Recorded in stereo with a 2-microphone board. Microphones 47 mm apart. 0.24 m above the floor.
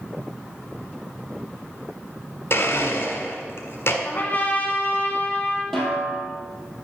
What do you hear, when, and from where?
2.5 s a blender: 65° left (ahead or behind), 1.4 m
4.0 s a trumpet: 35° left (ahead or behind), 1.6 m
5.7 s a snare drum: 5° left (ahead or behind), 3 m